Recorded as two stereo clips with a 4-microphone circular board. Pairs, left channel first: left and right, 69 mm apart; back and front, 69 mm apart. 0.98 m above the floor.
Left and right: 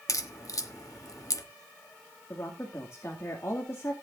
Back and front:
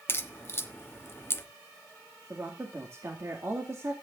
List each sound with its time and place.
0.1 s a crack: 125° left, 1.2 m
2.3 s a woman speaking: 45° left, 2 m